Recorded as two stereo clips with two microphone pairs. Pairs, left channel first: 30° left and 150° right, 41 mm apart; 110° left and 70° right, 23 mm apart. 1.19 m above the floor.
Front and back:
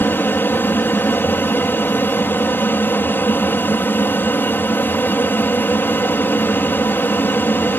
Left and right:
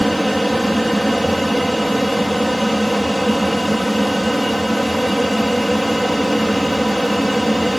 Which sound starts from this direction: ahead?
An aircraft, at 0.0 s.